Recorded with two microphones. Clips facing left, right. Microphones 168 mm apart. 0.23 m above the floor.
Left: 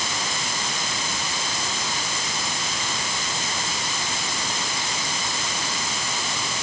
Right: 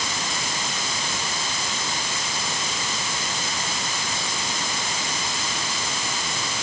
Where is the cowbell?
I don't hear a cowbell.